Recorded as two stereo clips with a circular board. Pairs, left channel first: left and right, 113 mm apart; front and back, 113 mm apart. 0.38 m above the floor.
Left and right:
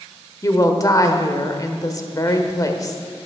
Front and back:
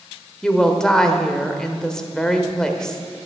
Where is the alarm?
No alarm in this recording.